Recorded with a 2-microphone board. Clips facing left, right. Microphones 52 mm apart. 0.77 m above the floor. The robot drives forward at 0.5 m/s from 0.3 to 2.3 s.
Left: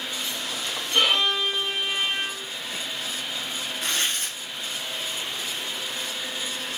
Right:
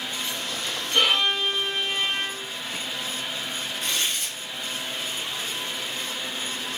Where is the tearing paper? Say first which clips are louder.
Left 2 dB; 45° left (ahead or behind), 4.5 m.